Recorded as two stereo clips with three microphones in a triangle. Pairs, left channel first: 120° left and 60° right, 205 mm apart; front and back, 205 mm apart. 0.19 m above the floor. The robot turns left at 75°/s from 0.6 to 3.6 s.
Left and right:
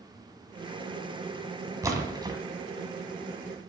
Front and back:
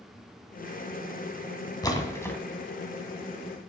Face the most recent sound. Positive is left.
turn(degrees=-155)